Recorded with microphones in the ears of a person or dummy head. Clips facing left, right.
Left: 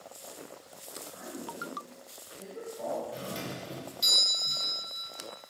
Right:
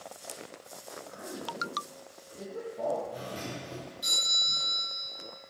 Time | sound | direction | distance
1.1 | a man speaking | 65° right (ahead or behind) | 2.5 m
3.1 | a doorbell | 30° left (ahead or behind) | 1.5 m